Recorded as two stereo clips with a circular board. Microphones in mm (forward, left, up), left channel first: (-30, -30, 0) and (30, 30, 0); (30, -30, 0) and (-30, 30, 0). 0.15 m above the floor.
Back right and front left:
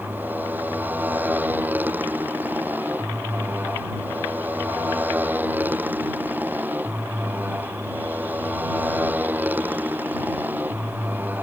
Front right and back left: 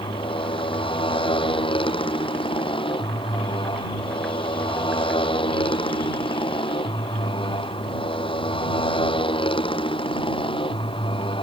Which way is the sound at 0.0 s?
25° right.